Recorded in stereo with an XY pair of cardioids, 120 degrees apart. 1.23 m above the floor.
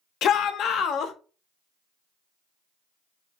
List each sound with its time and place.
0.2 s a shout: 65° left, 0.5 m